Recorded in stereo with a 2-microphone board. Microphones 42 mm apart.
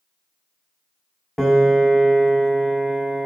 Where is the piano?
5° right (ahead or behind), 0.5 m.